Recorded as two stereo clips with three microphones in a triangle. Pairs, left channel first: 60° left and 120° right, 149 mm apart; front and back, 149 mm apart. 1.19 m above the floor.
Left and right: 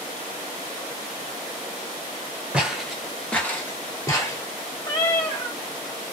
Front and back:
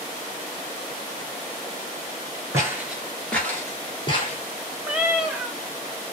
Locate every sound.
2.5 s footsteps: 170° left, 1.2 m; by 4.4 s 10° left, 1.5 m
4.8 s a cat meowing: 100° left, 0.8 m